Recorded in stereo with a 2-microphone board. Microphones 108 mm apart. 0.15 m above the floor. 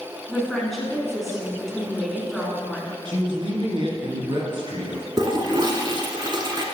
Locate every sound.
0.3 s a woman speaking: centre (ahead or behind), 1.5 m
3.0 s a man speaking: 50° right (ahead or behind), 1.7 m
5.2 s a toilet flushing: 40° right (ahead or behind), 0.7 m